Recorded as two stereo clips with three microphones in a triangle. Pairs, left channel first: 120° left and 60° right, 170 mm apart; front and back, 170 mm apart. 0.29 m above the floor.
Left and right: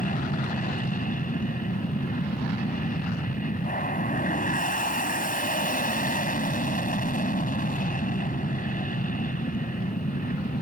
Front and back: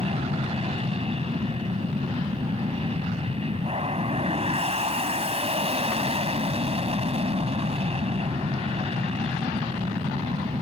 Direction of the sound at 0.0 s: 135° left.